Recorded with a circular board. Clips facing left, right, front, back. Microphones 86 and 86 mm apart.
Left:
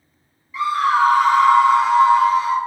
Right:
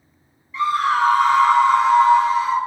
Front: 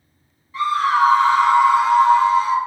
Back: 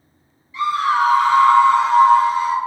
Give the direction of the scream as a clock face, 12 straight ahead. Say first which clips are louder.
Left 1 dB, even; 12 o'clock.